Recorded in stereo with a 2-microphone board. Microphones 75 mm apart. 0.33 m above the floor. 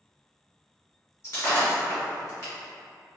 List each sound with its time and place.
1.2 s breaking glass: 40° left (ahead or behind), 1.5 m